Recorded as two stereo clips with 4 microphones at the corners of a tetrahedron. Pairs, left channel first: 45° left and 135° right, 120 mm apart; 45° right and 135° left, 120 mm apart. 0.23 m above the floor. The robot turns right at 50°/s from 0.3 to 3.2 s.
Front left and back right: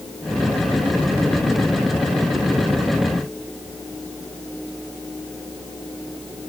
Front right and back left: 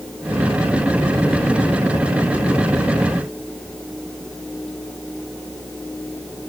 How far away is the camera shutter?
No camera shutter in this recording.